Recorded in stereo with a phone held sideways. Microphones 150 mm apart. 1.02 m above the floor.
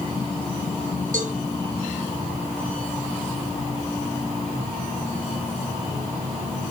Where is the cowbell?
75° right (ahead or behind), 5.5 m.